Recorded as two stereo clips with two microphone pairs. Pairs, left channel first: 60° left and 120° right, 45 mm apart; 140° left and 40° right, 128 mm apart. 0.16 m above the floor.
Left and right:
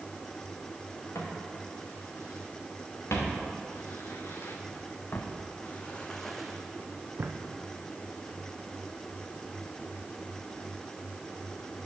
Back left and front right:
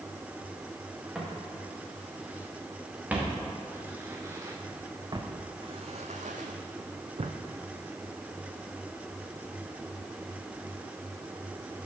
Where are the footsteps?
45° left, 3.5 m; by 7.3 s 80° right, 0.9 m.